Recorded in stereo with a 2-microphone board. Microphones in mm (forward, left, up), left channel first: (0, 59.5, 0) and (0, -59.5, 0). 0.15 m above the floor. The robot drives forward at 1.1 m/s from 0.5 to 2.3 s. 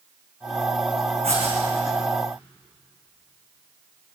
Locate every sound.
1.2 s writing: 60° right (ahead or behind), 8.5 m; by 1.6 s 55° right (ahead or behind), 8.5 m